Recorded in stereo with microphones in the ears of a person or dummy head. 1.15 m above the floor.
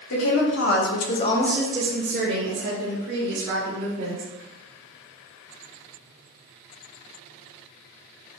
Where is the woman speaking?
65° left (ahead or behind), 1.6 m; by 4.2 s 75° right (ahead or behind), 3 m.